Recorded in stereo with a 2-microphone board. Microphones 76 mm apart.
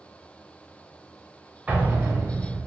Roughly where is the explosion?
Centre.